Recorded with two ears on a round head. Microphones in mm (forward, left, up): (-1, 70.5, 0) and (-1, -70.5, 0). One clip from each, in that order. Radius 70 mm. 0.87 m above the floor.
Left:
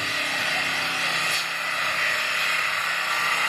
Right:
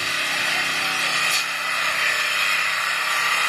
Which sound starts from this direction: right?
An engine running, at 0.0 s.